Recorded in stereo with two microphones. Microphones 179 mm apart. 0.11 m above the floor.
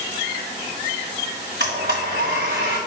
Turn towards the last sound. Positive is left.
turn(degrees=-70)  # may be behind; listen again after turning